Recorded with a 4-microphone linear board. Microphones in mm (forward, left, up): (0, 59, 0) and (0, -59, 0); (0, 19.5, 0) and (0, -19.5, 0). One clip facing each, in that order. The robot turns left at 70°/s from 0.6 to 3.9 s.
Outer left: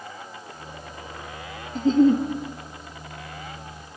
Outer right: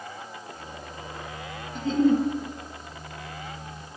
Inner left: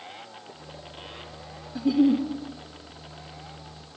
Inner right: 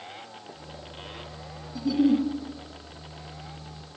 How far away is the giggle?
About 1.0 m.